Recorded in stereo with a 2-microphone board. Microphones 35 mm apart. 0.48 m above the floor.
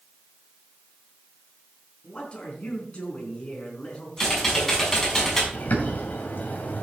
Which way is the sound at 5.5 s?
60° left (ahead or behind).